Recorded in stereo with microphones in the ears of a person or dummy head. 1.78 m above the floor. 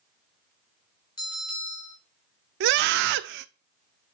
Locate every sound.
1.2 s a bell: 20° left (ahead or behind), 1.7 m
2.6 s a scream: 55° right (ahead or behind), 0.6 m